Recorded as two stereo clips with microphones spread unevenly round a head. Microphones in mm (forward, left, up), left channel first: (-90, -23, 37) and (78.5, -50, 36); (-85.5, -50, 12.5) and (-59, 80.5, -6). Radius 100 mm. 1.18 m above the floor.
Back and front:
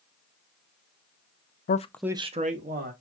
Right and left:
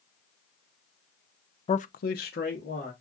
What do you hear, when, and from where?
1.7 s a man speaking: 155° right, 0.6 m; by 2.9 s 45° right, 1.6 m